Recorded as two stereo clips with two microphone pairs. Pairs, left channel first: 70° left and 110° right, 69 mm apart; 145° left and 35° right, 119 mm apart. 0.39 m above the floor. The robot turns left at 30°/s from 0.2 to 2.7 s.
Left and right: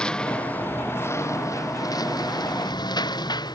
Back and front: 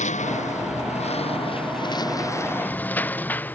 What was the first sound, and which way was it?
A lawn mower, 145° left.